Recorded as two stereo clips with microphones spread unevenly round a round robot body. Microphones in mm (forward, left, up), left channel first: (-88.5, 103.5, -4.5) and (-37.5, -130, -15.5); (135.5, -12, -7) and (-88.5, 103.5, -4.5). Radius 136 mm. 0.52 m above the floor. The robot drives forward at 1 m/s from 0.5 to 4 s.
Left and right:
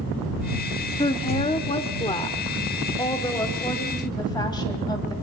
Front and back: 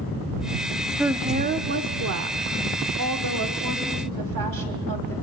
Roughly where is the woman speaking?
Left.